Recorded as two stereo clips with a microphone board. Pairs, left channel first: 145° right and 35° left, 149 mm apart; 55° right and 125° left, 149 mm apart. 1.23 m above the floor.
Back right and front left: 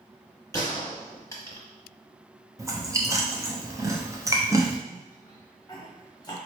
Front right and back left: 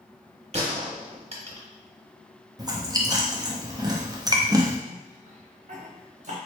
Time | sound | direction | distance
0.5 | a gunshot | 150° left | 0.9 m
2.6 | chewing | 85° left | 0.6 m
4.9 | a cough | 150° left | 0.8 m